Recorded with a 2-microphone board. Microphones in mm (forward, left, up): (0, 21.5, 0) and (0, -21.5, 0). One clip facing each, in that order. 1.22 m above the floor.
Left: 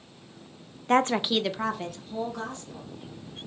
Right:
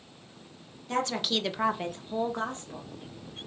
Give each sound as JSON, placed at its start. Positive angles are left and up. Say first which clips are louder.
{"t": 0.9, "sound": "a woman speaking", "louder": "left 6 dB", "side_deg": 55, "distance_m": 0.5}